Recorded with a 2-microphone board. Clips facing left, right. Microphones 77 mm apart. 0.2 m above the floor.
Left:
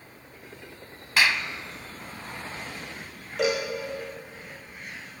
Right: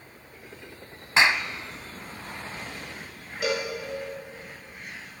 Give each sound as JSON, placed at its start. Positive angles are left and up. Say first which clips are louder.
{"t": 1.2, "sound": "a clap", "louder": "right 2 dB", "side_deg": -25, "distance_m": 1.1}
{"t": 3.4, "sound": "a cowbell", "louder": "left 3 dB", "side_deg": 80, "distance_m": 10.0}